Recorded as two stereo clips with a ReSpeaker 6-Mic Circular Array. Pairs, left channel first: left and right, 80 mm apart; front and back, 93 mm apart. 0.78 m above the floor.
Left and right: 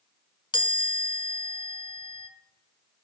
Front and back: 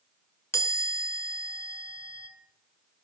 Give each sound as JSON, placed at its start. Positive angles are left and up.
{"t": 0.5, "sound": "a chime", "azimuth_deg": 65, "distance_m": 1.2}